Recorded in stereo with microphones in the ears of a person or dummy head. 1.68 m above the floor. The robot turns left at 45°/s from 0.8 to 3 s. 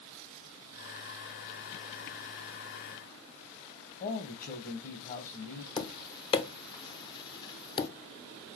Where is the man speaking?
40° left (ahead or behind), 1.0 m.